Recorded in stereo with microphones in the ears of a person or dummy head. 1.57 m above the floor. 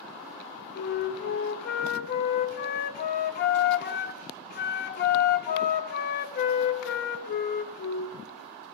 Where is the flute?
60° left (ahead or behind), 0.6 m.